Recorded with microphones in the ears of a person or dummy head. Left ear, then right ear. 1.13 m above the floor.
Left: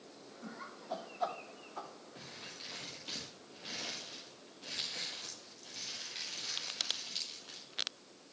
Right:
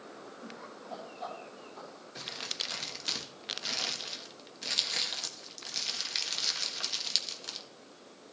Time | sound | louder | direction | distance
0.4 | laughter | left 2 dB | 60° left (ahead or behind) | 3 m
2.1 | crumpling | right 13 dB | 55° right (ahead or behind) | 1.4 m